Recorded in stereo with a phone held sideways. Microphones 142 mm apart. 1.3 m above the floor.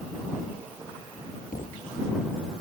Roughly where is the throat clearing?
No throat clearing in this recording.